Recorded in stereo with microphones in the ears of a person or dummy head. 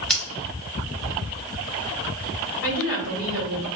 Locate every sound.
0.1 s scissors: centre (ahead or behind), 0.7 m
2.6 s a woman speaking: 65° left (ahead or behind), 1.6 m